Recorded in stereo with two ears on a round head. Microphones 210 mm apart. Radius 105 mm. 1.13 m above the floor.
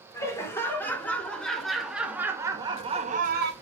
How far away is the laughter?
About 3.5 m.